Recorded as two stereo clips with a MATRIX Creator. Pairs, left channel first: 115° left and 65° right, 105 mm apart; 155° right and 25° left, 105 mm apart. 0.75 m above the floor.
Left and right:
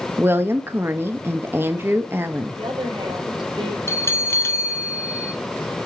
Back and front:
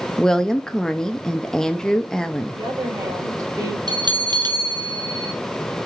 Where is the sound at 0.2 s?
80° right, 0.6 m.